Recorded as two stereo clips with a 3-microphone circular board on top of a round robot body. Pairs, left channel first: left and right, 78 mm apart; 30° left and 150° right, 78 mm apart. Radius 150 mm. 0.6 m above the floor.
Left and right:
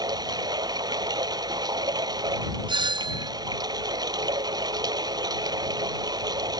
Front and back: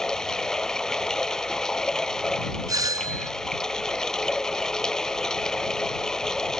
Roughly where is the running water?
Ahead right.